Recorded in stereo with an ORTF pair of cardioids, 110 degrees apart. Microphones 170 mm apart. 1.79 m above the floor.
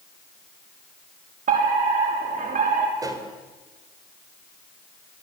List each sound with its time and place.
1.5 s a fire alarm: 50° right, 7 m
3.0 s a pop: 20° right, 4.5 m